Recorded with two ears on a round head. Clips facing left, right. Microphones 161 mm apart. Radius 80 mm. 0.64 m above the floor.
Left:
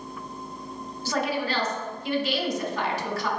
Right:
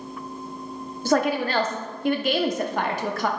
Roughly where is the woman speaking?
Right.